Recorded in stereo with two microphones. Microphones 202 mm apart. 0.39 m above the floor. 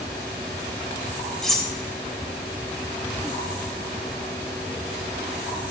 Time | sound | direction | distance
1.4 | cutlery clinking | centre (ahead or behind) | 0.7 m